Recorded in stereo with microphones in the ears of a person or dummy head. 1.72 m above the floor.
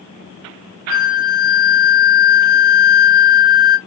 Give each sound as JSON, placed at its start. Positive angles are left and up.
{"t": 0.9, "sound": "a flute", "side_deg": 65, "distance_m": 1.5}